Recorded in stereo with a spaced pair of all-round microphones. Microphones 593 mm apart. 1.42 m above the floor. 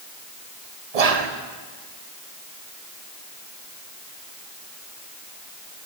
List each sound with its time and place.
0.9 s whispering: 80° right, 0.8 m